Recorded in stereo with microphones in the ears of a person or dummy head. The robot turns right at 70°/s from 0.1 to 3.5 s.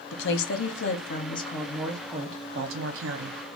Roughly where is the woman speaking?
Ahead left.